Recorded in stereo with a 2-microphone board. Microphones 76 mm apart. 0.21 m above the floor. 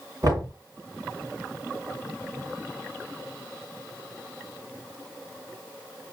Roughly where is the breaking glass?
No breaking glass in this recording.